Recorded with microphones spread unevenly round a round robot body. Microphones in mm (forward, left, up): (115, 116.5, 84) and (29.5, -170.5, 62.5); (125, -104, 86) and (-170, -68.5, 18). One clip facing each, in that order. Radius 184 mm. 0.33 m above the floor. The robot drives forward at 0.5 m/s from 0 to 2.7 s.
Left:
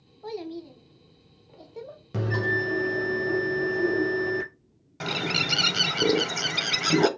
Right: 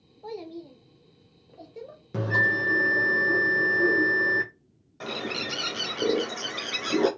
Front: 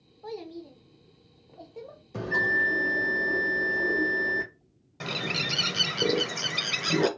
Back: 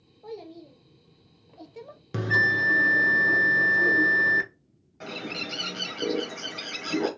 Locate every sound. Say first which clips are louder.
0.2 s a child speaking: left 3 dB, front 2 dB; 45° left, 0.6 m; by 2.0 s 165° left, 0.9 m
2.1 s a bell: left 2 dB, back 1 dB; 160° left, 0.9 m; by 4.5 s 165° left, 1.2 m
5.0 s a bird: left 2 dB, front 1 dB; 30° left, 0.7 m